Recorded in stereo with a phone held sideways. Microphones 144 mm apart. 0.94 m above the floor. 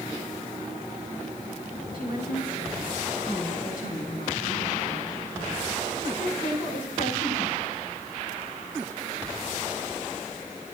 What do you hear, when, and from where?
1.9 s a woman speaking: 90° left, 9.5 m; by 7.8 s 80° left, 4.5 m